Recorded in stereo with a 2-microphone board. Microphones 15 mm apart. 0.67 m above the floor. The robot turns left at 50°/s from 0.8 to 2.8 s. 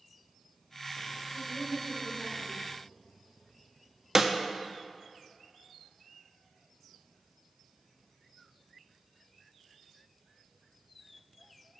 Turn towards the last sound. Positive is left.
turn(degrees=-25)  # may be behind; listen again after turning